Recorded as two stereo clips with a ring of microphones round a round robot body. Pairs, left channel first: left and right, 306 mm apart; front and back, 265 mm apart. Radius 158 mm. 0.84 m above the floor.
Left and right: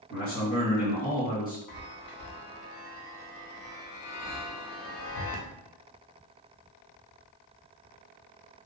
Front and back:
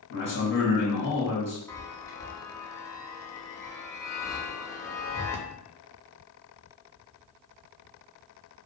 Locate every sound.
0.1 s a man speaking: 35° left, 1.6 m
1.7 s a chime: 80° left, 0.7 m